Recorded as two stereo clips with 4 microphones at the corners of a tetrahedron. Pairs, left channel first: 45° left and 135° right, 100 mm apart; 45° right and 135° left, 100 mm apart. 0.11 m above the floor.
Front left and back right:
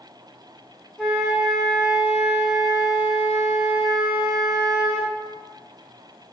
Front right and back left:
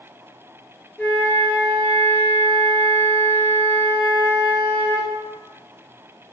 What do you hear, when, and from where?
1.0 s a flute: 25° right, 0.7 m